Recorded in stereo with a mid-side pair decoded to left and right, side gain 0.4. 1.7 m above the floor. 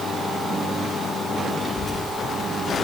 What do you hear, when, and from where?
1.6 s a child speaking: 20° left, 3 m; by 2.7 s 45° left, 1.8 m